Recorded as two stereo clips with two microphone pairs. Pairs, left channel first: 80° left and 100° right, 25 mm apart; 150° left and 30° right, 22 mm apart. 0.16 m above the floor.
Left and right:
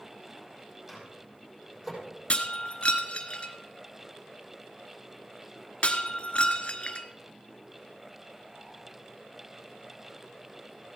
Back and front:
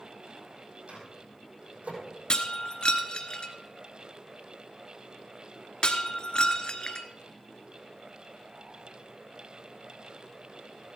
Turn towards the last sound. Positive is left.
turn(degrees=110)